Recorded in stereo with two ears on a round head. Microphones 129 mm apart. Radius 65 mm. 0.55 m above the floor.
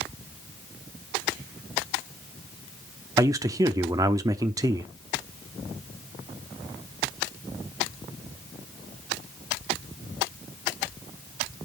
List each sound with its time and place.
3.2 s a man speaking: 25° right (ahead or behind), 0.7 m